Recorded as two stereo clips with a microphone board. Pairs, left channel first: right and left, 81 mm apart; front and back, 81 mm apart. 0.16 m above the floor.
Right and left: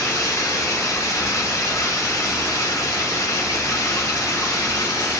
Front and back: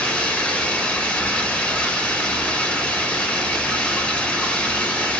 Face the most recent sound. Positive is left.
turn(degrees=-65)